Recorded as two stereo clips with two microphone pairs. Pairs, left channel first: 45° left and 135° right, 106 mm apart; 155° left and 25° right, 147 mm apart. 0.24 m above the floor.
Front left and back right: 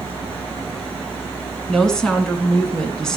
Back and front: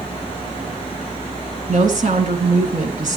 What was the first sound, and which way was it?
A woman speaking, 40° right.